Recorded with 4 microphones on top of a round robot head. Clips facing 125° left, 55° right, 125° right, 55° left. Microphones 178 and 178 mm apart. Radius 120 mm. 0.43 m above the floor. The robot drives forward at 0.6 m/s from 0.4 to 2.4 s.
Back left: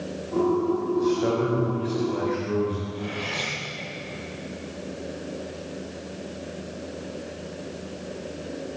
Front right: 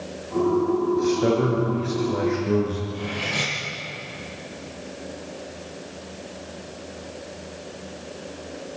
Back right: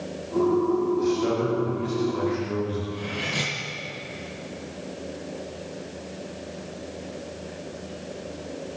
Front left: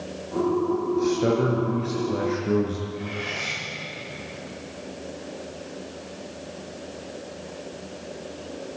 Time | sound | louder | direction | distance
1.0 | a man speaking | front right 1 dB, front left 2 dB | 10° left | 7 m
2.9 | cutlery clinking | front right 2 dB, back right 1 dB | 125° right | 8.5 m